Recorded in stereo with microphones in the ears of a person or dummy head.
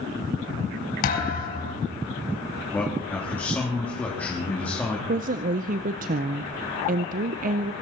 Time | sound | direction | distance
1.0 | a thud | 50° left (ahead or behind) | 4.5 m
2.7 | a man speaking | 10° left (ahead or behind) | 3 m
5.1 | a woman speaking | 40° right (ahead or behind) | 0.6 m